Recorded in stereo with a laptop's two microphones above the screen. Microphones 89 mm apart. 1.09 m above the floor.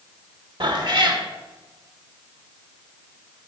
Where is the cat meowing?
60° right (ahead or behind), 1.3 m.